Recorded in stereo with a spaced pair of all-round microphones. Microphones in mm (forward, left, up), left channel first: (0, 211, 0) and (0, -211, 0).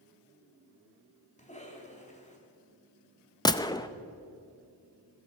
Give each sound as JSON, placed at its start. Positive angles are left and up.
{"t": 1.4, "sound": "a cough", "side_deg": 15, "distance_m": 3.0}
{"t": 3.5, "sound": "a gunshot", "side_deg": 10, "distance_m": 0.5}